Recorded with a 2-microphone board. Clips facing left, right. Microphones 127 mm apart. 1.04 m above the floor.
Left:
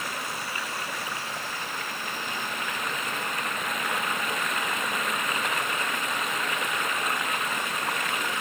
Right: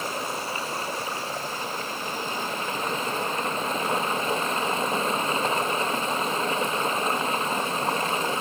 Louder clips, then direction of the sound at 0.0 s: Right 4 dB; 30° right (ahead or behind).